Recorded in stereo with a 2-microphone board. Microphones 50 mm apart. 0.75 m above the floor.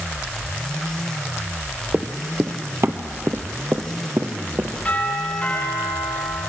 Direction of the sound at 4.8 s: 25° left (ahead or behind).